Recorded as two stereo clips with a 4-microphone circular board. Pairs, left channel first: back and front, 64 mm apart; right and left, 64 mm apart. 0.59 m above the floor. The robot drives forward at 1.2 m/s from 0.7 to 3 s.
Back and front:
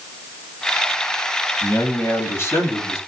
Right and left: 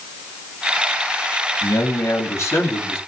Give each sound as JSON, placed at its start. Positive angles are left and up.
{"t": 1.6, "sound": "a man speaking", "azimuth_deg": -130, "distance_m": 5.0}